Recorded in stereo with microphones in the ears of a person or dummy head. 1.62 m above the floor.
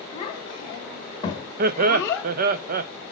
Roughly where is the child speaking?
Left.